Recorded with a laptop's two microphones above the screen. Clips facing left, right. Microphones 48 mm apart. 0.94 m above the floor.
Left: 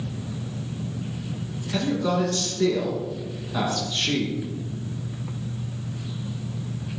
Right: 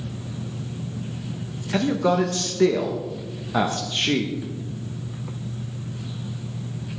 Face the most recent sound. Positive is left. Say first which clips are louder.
# right 3 dB
turn(degrees=-30)  # may be behind; listen again after turning